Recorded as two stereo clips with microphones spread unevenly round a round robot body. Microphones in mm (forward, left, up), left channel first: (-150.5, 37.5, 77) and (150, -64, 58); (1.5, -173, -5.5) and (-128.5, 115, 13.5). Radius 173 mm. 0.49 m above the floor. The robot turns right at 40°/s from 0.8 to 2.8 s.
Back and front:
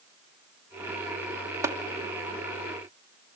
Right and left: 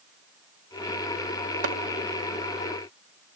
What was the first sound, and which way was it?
Tapping, 60° left.